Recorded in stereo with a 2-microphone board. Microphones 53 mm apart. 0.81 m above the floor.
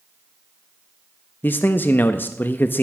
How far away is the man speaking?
About 0.6 m.